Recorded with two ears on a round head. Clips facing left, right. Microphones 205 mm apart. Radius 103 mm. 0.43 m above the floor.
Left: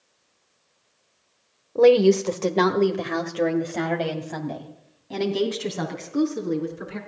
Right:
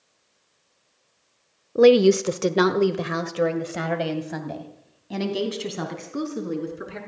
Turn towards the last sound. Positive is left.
turn(degrees=0)  # may be behind; listen again after turning